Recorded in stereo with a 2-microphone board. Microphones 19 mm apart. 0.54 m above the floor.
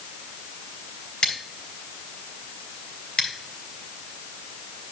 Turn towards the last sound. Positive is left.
turn(degrees=60)  # may be behind; listen again after turning